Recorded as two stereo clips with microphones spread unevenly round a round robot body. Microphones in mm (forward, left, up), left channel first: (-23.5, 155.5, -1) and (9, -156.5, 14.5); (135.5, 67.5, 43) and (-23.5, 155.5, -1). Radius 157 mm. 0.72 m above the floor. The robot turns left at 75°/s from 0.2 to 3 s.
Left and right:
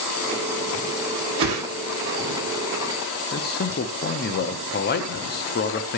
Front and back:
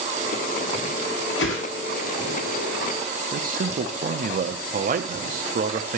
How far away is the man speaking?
About 0.7 m.